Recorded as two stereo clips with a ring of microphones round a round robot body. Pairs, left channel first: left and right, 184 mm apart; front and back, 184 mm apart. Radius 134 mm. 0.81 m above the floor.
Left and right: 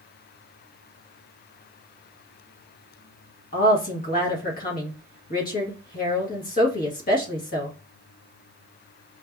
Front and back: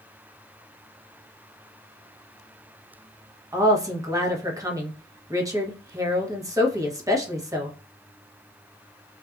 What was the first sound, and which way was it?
A woman speaking, 110° left.